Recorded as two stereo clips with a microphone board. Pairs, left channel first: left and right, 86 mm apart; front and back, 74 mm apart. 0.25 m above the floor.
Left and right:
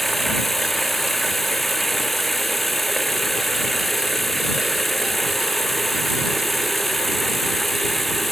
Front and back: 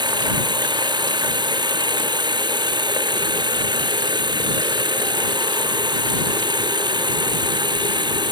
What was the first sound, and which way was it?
Running water, straight behind.